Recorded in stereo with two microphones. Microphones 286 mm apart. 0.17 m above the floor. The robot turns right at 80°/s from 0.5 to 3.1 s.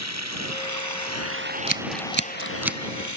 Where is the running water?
115° right; by 3.2 s 95° left.